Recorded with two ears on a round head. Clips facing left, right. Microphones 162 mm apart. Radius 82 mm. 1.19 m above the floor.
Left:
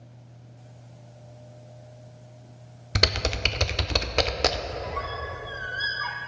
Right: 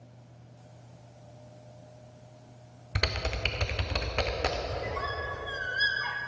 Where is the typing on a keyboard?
50° left (ahead or behind), 0.6 m.